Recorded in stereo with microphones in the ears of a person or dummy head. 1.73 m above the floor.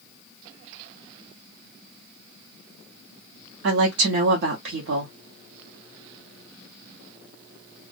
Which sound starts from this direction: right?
A woman speaking, at 3.6 s.